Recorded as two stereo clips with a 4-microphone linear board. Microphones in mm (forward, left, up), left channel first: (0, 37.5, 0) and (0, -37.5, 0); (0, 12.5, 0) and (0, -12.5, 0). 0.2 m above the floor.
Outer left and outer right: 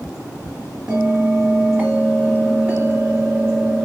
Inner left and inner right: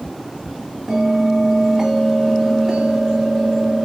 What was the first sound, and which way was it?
A bell, 20° right (ahead or behind).